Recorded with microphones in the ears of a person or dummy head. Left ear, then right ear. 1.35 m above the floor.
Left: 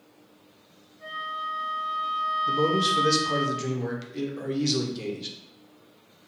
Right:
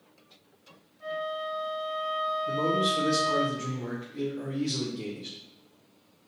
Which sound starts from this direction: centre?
A flute, at 1.0 s.